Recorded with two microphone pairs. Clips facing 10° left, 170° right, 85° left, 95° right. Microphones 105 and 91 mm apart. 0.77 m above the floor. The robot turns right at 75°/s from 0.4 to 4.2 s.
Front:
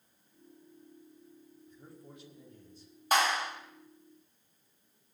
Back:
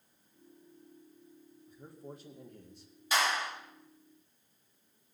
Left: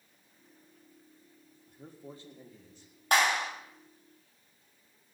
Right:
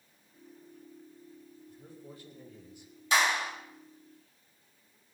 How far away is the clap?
About 4 m.